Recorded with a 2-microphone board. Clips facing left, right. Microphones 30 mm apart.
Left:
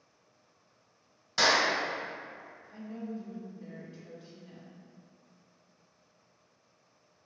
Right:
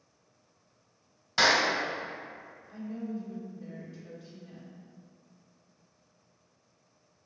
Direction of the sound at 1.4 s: 15° right (ahead or behind).